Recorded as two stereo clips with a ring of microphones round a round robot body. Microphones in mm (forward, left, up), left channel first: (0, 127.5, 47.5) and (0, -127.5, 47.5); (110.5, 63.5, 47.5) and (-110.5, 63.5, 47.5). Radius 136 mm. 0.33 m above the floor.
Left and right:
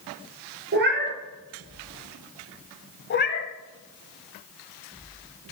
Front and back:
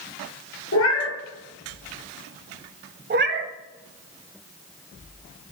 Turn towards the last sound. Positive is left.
turn(degrees=140)